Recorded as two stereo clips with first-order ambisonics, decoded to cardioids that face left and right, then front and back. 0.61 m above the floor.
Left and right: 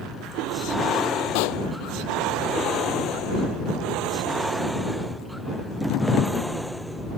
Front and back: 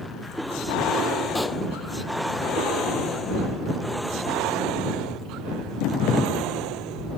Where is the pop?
85° left.